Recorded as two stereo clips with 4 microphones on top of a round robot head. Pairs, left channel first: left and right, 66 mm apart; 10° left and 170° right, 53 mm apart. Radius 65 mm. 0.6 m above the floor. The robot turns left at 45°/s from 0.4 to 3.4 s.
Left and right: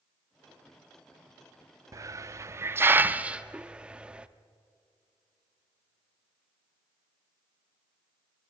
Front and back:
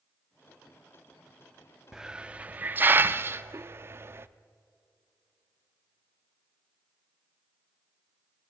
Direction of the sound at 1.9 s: 90° right.